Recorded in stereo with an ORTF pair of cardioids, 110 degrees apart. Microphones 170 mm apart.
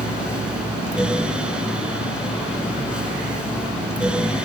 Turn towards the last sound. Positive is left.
turn(degrees=-5)